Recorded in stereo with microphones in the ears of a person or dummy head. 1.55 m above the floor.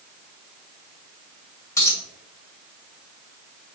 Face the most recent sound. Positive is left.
turn(degrees=15)  # may be behind; listen again after turning